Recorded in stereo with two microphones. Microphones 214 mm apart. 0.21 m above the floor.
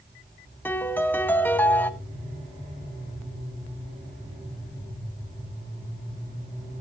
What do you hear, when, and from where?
0.7 s a piano: 10° left (ahead or behind), 1.0 m